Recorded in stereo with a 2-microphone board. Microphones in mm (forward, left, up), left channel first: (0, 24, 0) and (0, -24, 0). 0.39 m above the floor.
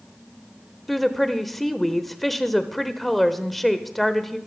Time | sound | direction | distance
0.9 | a woman speaking | 5° left (ahead or behind) | 1.1 m